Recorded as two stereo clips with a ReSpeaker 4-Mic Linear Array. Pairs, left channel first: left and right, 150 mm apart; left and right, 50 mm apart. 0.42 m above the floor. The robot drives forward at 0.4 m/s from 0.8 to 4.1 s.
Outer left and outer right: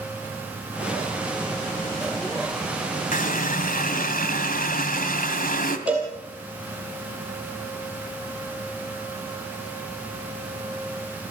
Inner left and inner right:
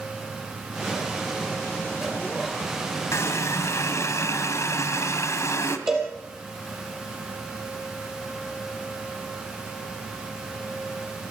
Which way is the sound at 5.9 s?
10° right (ahead or behind).